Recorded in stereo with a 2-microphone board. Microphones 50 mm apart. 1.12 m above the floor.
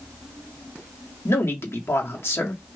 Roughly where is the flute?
I don't hear a flute.